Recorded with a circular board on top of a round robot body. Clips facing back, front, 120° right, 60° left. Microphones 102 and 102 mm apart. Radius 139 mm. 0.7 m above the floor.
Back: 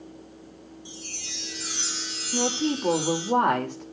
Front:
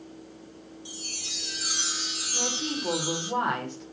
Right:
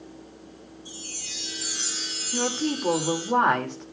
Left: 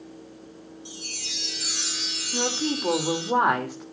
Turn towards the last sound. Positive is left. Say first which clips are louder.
# back 7 dB, right 1 dB
turn(degrees=140)